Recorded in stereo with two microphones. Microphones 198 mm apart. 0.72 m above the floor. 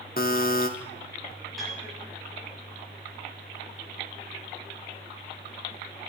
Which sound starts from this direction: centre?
A piano, at 1.6 s.